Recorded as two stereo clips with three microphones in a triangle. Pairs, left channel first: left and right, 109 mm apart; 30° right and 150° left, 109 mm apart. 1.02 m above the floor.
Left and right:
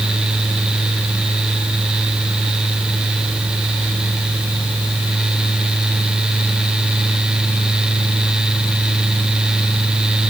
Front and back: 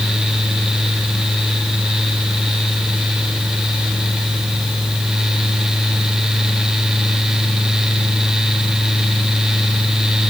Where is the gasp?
I don't hear a gasp.